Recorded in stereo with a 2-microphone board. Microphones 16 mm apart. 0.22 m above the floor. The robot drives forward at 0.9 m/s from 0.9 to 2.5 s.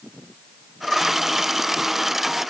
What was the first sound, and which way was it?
Only background noise.